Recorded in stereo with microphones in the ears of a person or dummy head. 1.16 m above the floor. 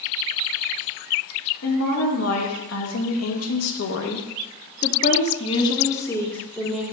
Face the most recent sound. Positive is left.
turn(degrees=0)  # may be behind; listen again after turning